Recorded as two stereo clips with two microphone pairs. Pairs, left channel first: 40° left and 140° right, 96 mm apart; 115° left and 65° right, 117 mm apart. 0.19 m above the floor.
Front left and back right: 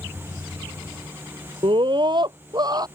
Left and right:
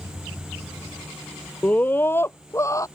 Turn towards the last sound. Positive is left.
turn(degrees=175)